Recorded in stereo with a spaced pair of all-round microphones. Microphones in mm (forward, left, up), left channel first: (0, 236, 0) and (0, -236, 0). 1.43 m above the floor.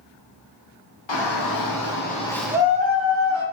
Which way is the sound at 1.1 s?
65° left (ahead or behind).